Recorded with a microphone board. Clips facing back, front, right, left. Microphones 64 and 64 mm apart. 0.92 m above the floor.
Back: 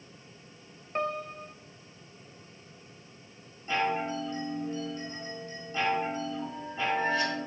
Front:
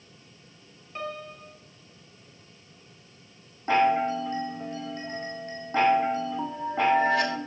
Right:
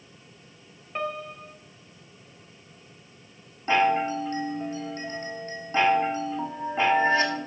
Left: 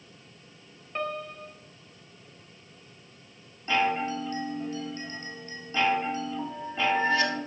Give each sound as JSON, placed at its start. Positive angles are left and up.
{"t": 0.9, "sound": "a piano", "azimuth_deg": -175, "distance_m": 0.6}
{"t": 3.7, "sound": "a chime", "azimuth_deg": -30, "distance_m": 1.4}